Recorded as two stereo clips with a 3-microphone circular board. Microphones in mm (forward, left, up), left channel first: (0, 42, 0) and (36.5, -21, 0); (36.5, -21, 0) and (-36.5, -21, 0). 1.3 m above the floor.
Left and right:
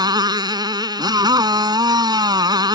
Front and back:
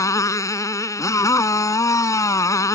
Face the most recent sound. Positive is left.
turn(degrees=-40)